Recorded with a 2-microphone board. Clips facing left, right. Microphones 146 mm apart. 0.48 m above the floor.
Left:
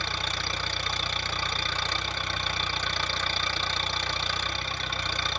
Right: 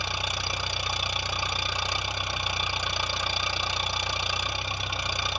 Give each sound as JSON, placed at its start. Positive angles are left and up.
{"t": 0.0, "sound": "an engine running", "side_deg": -10, "distance_m": 1.0}